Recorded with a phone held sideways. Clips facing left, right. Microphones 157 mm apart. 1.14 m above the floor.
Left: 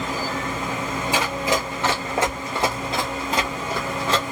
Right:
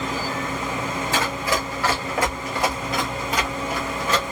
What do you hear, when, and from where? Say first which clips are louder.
1.1 s running footsteps: left 2 dB; 15° left (ahead or behind), 1.2 m; by 4.2 s 30° left (ahead or behind), 1.9 m